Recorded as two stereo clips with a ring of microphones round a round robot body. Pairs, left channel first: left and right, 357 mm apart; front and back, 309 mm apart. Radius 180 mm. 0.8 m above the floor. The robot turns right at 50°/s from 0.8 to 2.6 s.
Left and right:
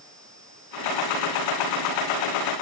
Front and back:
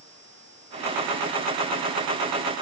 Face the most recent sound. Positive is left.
No sound to turn to.